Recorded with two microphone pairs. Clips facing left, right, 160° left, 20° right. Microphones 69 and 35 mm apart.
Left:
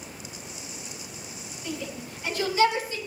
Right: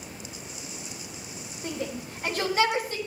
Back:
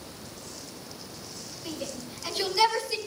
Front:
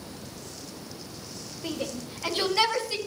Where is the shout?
55° right, 2.5 m; by 3.0 s 65° right, 4 m.